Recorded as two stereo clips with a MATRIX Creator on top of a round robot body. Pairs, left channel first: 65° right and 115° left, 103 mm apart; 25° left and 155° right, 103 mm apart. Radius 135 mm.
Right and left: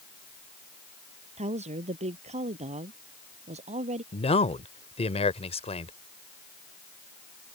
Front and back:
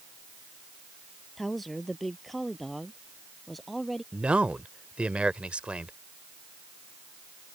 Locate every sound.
1.4 s a woman speaking: 110° left
4.1 s a man speaking: 80° right